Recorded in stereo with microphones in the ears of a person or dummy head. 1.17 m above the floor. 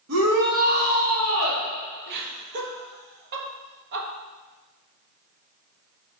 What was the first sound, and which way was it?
A shout, 80° right.